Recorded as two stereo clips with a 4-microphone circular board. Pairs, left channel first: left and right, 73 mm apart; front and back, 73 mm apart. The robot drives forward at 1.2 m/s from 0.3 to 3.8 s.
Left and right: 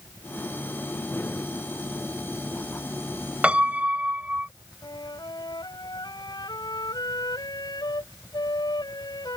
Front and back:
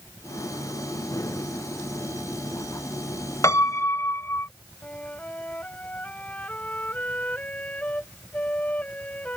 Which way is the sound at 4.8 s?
70° left.